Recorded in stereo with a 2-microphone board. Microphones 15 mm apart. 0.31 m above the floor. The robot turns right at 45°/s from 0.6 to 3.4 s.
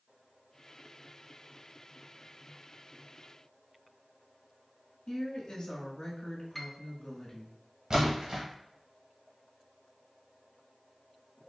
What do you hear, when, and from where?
5.1 s a woman speaking: 60° left (ahead or behind), 1.9 m
6.5 s a piano: 10° left (ahead or behind), 0.6 m
7.9 s a splash: 40° right (ahead or behind), 1.9 m